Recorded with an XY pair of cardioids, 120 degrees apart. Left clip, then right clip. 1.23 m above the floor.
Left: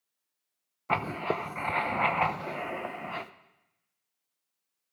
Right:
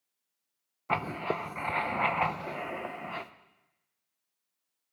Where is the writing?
10° left, 0.7 m.